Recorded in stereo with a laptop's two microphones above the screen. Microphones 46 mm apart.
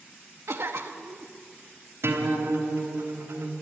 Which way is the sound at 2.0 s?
70° right (ahead or behind).